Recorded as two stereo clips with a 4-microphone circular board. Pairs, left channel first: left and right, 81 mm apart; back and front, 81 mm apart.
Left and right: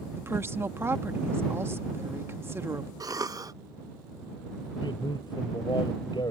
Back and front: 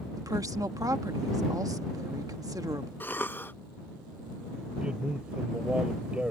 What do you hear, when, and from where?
0.2 s a woman speaking: 35° right
3.0 s a cough: 120° right
4.8 s a man speaking: 75° left